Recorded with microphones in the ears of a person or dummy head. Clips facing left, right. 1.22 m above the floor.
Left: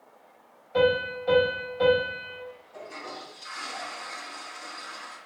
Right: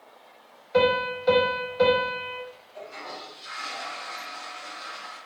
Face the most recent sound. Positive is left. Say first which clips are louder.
# right 2 dB
turn(degrees=70)  # may be behind; listen again after turning